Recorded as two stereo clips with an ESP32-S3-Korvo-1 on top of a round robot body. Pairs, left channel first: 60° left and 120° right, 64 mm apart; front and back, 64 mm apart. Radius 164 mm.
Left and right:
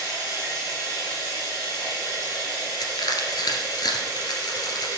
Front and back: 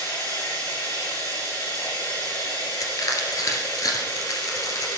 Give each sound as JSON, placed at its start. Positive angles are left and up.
{"t": 0.0, "sound": "running water", "azimuth_deg": 15, "distance_m": 7.0}
{"t": 2.8, "sound": "crushing", "azimuth_deg": 40, "distance_m": 1.8}